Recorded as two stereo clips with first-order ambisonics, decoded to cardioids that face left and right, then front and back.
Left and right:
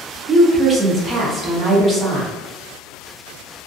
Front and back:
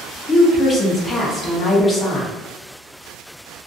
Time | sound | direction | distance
0.3 | a woman speaking | 55° right | 0.6 m